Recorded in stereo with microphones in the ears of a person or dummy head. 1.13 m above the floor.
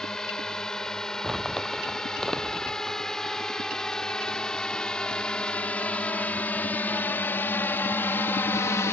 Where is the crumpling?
Centre (ahead or behind).